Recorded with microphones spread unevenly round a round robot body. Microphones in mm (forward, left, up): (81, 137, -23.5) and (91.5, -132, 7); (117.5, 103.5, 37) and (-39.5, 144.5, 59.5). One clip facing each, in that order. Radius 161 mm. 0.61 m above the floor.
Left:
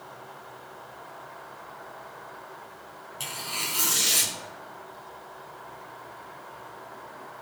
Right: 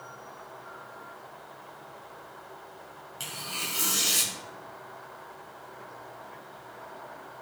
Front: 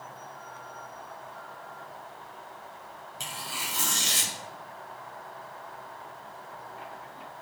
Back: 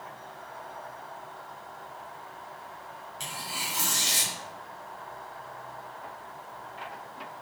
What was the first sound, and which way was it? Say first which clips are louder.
Tearing paper: left 1 dB, even; 5° left.